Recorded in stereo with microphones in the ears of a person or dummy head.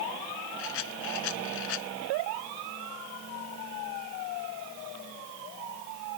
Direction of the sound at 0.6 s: 70° left (ahead or behind).